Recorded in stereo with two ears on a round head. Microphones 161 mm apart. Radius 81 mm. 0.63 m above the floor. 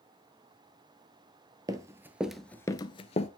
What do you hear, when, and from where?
1.7 s running footsteps: 20° right (ahead or behind), 0.9 m; by 3.3 s 35° left (ahead or behind), 0.7 m